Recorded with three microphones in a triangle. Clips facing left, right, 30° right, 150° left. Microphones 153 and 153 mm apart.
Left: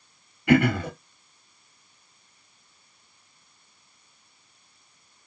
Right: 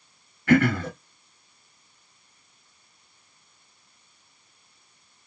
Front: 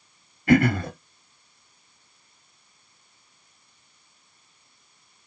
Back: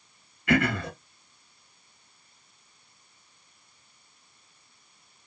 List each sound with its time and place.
0.5 s throat clearing: 15° left, 1.5 m